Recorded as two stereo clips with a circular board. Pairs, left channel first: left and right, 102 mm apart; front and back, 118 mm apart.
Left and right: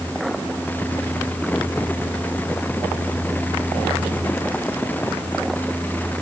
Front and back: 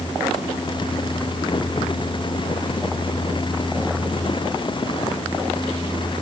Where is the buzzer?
No buzzer in this recording.